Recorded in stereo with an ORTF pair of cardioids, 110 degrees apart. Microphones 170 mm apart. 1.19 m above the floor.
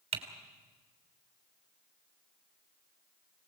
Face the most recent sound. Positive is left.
turn(degrees=-40)